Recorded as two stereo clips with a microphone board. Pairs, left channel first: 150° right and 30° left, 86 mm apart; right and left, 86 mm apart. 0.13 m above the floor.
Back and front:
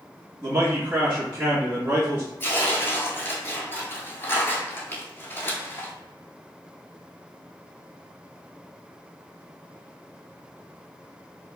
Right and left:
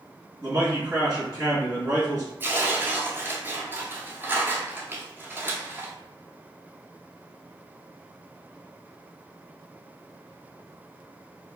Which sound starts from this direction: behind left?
Tearing paper, at 2.4 s.